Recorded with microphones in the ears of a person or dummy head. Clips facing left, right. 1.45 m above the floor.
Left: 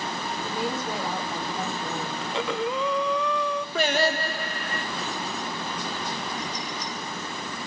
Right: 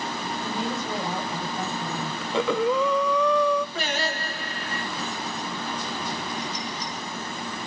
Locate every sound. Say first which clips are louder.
0.4 s a woman speaking: even; 10° left (ahead or behind), 5 m
2.2 s breathing: right 6 dB; 75° right (ahead or behind), 1.2 m
3.8 s singing: left 5 dB; 50° left (ahead or behind), 2.0 m